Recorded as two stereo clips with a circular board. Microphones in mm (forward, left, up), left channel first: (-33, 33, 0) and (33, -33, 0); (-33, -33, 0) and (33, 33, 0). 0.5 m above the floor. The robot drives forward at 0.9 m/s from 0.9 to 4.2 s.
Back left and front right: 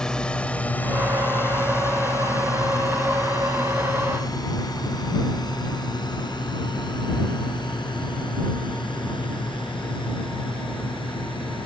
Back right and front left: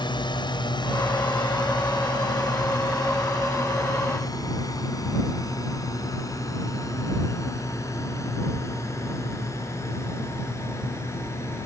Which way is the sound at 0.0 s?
145° right.